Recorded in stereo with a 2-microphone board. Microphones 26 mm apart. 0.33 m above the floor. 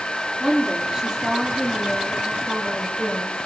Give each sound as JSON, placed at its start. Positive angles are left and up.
{"t": 0.4, "sound": "a woman speaking", "side_deg": -25, "distance_m": 8.5}